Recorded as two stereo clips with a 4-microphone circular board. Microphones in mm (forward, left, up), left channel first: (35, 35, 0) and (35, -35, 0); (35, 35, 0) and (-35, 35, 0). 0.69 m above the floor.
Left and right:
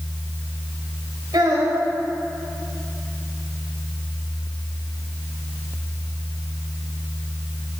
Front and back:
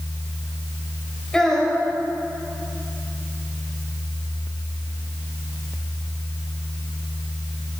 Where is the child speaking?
85° right, 2.0 m.